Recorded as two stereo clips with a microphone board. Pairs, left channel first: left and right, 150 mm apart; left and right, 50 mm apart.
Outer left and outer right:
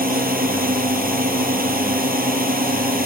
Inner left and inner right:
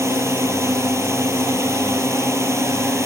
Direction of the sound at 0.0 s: 75° right (ahead or behind).